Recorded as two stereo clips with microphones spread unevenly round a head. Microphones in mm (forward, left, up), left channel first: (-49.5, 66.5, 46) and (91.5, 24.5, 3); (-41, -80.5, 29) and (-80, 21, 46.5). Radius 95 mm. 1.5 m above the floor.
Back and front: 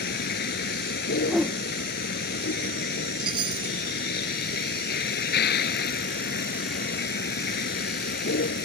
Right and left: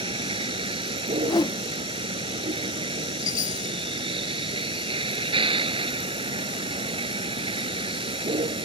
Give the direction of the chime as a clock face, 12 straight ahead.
2 o'clock.